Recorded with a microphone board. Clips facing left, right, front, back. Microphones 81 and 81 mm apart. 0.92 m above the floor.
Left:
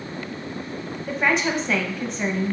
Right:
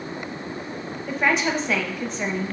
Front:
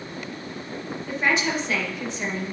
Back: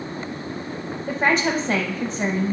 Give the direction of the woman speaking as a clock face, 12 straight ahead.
6 o'clock.